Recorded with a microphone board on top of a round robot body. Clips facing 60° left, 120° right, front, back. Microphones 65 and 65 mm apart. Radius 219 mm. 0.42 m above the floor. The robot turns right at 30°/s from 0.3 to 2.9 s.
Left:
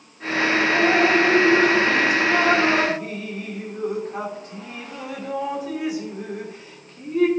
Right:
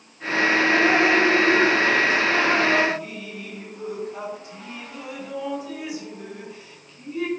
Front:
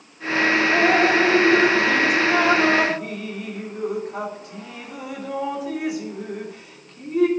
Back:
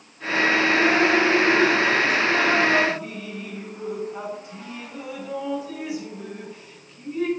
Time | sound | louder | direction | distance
0.7 | dripping | left 2 dB, front 3 dB | 55° right | 2 m